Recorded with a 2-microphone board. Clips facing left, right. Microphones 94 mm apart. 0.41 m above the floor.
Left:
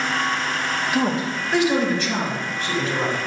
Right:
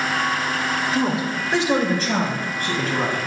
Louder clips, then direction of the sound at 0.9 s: Left 2 dB; 10° left (ahead or behind).